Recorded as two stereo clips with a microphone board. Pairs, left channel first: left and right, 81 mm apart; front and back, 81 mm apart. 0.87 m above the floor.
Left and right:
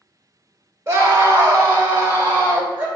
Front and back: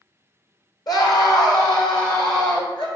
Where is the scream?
35° right, 1.5 m; by 2.9 s 30° right, 3 m.